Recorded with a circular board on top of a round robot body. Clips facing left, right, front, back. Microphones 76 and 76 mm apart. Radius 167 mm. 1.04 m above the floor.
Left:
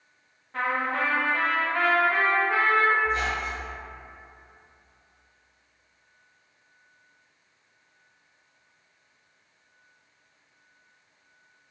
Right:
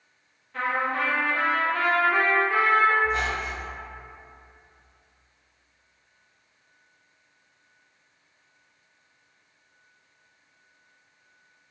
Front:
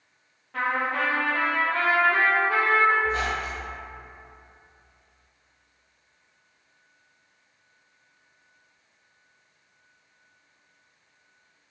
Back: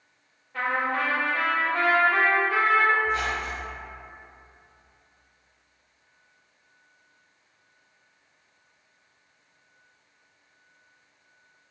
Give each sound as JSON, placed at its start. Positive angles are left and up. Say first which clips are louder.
{"t": 0.5, "sound": "a trumpet", "louder": "even, even", "azimuth_deg": 35, "distance_m": 0.6}
{"t": 3.0, "sound": "a squeak", "louder": "right 1 dB, even", "azimuth_deg": -65, "distance_m": 1.1}